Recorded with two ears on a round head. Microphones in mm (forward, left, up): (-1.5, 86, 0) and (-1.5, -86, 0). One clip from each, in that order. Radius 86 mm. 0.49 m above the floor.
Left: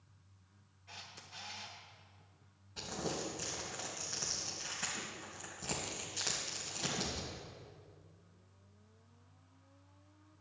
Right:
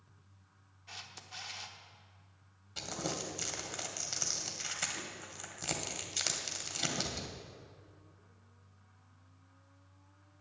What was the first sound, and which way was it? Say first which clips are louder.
A camera shutter: right 3 dB; 35° right (ahead or behind).